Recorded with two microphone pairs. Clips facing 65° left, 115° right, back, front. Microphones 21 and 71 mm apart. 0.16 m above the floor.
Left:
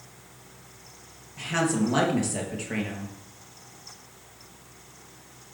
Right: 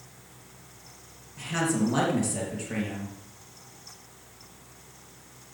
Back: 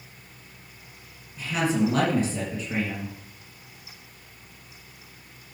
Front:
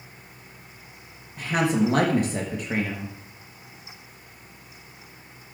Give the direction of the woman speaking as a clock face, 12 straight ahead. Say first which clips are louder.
Left 2 dB, front 2 dB; 12 o'clock.